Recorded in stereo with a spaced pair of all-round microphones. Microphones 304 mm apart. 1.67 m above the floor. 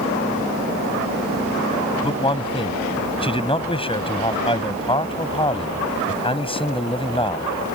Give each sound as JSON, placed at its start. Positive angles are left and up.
{"t": 2.0, "sound": "a man speaking", "side_deg": 15}